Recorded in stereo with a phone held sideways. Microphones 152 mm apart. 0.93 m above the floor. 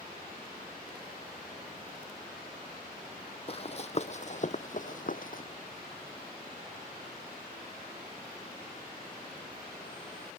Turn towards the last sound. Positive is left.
turn(degrees=60)  # may be behind; listen again after turning